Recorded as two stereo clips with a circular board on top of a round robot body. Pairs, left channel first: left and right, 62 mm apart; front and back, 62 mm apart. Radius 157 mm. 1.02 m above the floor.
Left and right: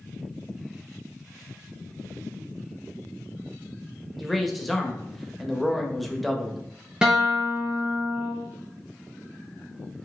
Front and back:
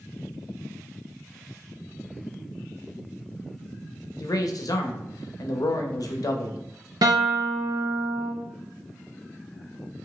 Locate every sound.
4.2 s a man speaking: straight ahead, 0.6 m
7.0 s a guitar: 165° right, 0.6 m